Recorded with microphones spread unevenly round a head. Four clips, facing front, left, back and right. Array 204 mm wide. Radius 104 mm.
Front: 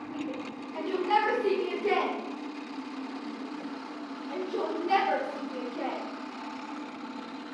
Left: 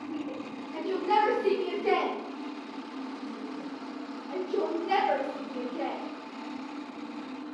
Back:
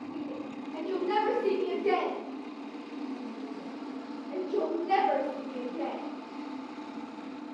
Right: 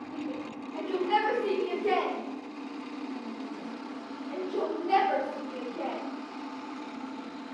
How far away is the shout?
About 5 m.